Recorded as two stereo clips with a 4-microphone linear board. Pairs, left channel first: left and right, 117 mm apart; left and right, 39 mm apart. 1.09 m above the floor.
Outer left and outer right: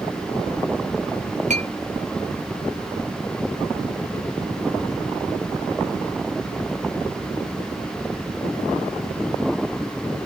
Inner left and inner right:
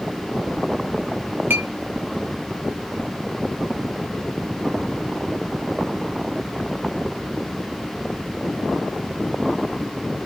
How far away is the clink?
About 0.6 m.